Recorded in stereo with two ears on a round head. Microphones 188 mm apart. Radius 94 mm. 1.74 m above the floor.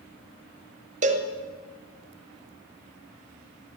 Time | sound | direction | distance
1.0 | a cowbell | 35° right (ahead or behind) | 0.9 m